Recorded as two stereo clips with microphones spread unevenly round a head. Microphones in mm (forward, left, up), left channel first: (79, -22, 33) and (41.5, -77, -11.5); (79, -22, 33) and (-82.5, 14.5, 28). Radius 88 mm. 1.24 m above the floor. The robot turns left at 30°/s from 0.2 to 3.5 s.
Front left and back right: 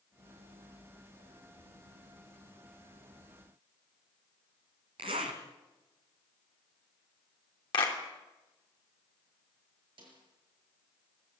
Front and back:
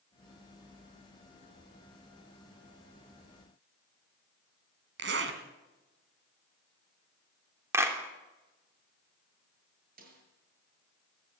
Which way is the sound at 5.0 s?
175° right.